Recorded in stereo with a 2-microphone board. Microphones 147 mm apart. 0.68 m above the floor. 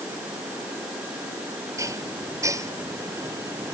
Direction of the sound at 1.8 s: 20° right (ahead or behind).